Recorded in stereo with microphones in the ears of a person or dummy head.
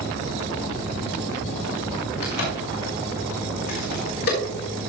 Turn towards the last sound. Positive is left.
turn(degrees=50)  # may be behind; listen again after turning